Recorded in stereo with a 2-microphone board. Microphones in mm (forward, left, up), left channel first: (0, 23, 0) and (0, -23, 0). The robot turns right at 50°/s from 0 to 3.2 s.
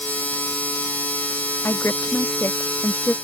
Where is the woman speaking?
70° left; by 3.1 s 145° left.